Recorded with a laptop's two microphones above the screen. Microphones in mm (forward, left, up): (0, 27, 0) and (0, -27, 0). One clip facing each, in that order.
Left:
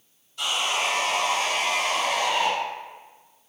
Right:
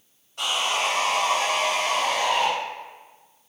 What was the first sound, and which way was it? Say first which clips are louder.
Sawing: right 1 dB; 65° right (ahead or behind).